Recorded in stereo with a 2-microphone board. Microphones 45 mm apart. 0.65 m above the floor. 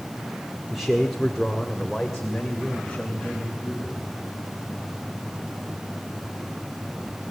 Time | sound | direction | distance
0.7 | a man speaking | centre (ahead or behind) | 1.9 m